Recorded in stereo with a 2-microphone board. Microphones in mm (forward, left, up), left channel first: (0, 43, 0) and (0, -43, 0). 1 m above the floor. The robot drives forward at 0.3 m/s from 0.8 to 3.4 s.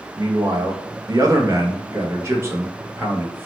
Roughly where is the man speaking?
Right.